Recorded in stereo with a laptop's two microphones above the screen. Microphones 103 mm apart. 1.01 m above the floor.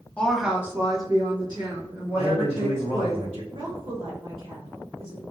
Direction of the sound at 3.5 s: 60° right (ahead or behind).